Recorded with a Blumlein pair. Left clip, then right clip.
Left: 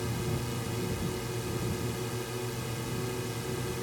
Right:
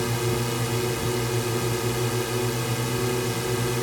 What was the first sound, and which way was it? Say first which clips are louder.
A drone: right 9 dB; 60° right.